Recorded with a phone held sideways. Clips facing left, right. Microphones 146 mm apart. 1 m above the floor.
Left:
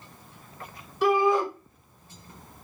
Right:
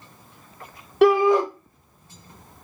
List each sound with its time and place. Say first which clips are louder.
1.0 s a shout: right 6 dB; 70° right (ahead or behind), 0.8 m